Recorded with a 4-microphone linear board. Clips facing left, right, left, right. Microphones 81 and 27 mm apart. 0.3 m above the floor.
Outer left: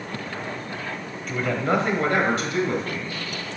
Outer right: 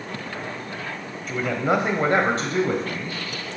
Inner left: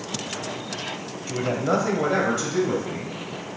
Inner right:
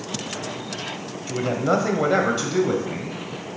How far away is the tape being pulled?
No tape being pulled in this recording.